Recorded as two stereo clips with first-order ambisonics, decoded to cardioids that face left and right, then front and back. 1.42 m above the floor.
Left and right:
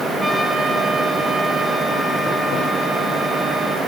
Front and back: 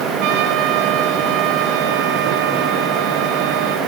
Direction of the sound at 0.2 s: 175° right.